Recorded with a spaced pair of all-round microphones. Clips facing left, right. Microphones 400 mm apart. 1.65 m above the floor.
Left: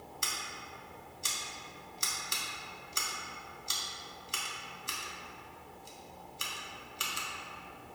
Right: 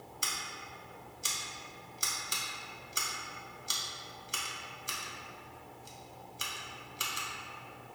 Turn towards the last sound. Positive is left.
turn(degrees=0)  # may be behind; listen again after turning